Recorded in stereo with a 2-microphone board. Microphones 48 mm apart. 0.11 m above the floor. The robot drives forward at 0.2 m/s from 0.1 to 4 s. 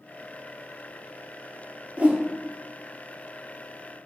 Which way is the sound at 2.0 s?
30° right (ahead or behind).